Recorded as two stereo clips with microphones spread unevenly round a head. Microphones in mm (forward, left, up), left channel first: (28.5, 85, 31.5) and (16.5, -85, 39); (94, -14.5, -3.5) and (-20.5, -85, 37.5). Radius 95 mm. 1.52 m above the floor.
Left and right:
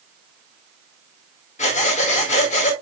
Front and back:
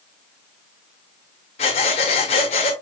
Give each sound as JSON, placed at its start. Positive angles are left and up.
{"t": 1.6, "sound": "breathing", "azimuth_deg": 75, "distance_m": 1.3}